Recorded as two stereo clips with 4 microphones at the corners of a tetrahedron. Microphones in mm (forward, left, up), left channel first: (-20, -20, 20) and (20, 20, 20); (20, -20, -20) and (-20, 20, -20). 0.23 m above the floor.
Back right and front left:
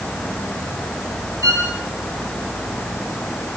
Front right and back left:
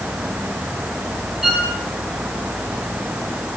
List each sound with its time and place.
1.4 s a violin: 55° left, 5.5 m